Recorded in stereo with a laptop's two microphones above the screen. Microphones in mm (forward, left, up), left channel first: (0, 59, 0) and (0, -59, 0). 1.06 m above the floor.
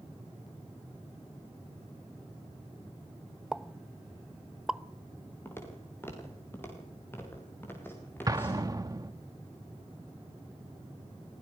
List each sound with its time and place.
3.5 s a pop: 5° right (ahead or behind), 0.7 m
5.5 s footsteps: 20° left (ahead or behind), 7 m
8.3 s an explosion: 30° right (ahead or behind), 1.1 m